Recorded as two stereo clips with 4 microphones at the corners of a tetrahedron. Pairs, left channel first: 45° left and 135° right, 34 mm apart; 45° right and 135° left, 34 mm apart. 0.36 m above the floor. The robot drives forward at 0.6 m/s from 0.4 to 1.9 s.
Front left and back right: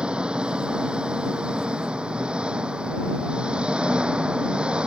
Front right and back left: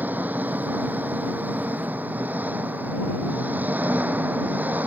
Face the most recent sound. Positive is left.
turn(degrees=165)